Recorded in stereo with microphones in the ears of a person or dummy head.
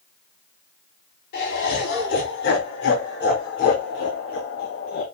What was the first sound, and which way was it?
Laughter, 70° left (ahead or behind).